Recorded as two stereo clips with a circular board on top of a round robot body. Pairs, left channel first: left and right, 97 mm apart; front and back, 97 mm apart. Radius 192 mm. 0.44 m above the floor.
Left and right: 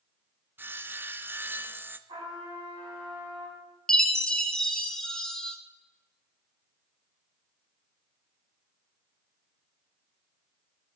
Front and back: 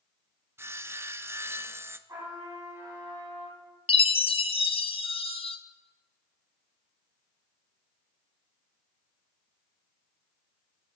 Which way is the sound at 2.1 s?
130° right.